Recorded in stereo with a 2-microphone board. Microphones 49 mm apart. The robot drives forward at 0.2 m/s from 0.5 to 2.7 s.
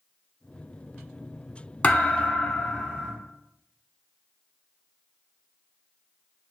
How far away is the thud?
About 0.6 m.